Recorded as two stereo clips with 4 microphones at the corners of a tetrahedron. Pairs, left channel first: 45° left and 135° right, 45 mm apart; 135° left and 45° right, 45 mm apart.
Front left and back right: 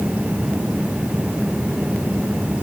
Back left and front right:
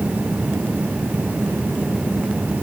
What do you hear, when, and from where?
Only background noise.